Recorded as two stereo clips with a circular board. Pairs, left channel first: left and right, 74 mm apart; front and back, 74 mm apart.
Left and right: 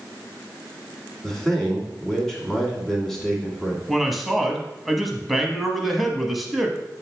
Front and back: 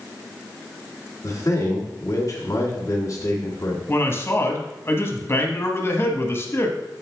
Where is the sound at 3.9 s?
Straight ahead, 1.1 m.